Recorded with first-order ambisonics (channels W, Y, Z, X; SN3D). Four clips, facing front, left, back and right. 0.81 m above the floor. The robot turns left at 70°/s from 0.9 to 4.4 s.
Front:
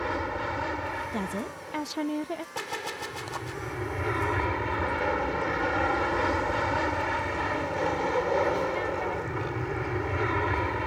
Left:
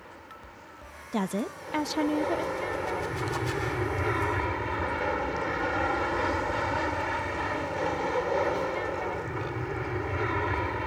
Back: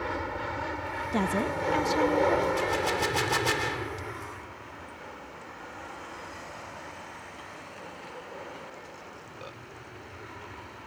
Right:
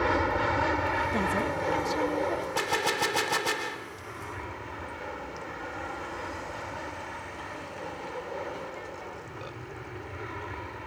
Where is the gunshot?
80° right; by 4.1 s 170° left.